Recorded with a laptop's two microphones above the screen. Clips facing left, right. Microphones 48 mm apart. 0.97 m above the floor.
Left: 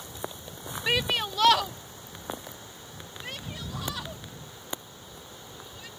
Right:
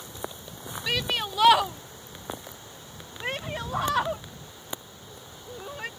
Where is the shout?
15° left (ahead or behind); by 5.9 s 55° right (ahead or behind).